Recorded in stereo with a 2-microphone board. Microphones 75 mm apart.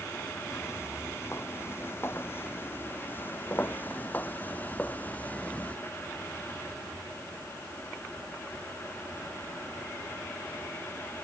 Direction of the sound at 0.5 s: 35° left (ahead or behind).